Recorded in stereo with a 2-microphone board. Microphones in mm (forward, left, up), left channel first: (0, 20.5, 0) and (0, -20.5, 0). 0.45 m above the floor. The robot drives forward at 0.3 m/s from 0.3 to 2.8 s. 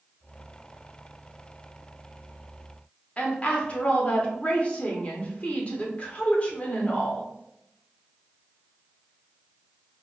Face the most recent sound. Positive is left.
turn(degrees=35)  # may be behind; listen again after turning